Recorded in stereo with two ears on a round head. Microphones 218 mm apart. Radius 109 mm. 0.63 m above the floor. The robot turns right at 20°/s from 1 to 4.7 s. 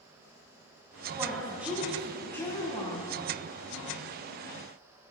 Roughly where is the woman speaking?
Ahead.